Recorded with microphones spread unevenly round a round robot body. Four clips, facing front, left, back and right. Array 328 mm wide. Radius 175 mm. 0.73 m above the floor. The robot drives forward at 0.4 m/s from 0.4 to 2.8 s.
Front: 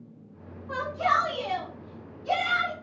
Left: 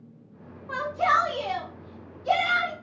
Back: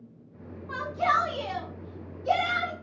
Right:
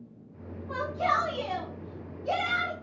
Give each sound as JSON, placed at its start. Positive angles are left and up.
{"t": 0.7, "sound": "a shout", "azimuth_deg": 100, "distance_m": 1.4}